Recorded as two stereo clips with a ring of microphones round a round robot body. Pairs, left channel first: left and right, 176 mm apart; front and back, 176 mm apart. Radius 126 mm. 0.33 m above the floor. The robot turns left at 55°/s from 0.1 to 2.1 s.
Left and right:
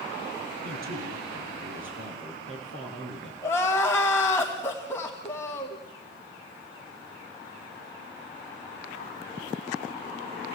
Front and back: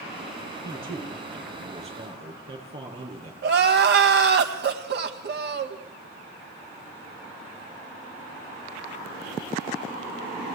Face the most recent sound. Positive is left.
turn(degrees=170)